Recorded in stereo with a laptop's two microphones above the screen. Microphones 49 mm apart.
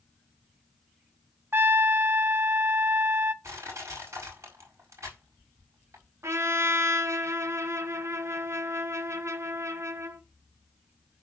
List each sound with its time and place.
1.5 s a trumpet: 50° right (ahead or behind), 0.7 m
3.4 s crushing: 85° right, 5 m
6.2 s a trumpet: 70° right (ahead or behind), 1.0 m